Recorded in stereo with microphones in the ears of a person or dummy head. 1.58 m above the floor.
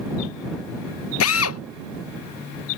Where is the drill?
80° left.